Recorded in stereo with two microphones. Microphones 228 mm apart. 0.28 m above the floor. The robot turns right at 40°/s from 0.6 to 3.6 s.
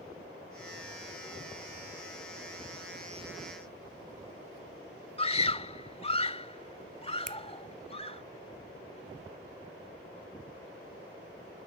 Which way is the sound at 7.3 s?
30° right (ahead or behind).